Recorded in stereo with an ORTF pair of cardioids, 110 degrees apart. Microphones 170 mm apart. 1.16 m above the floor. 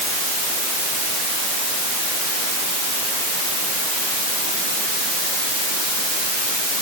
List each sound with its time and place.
Only background noise.